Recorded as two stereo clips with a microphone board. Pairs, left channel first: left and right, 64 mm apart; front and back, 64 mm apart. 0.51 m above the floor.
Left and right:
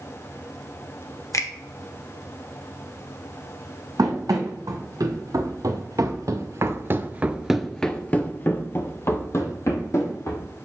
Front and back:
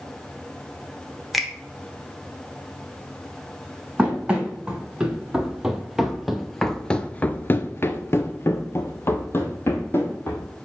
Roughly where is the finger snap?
Left.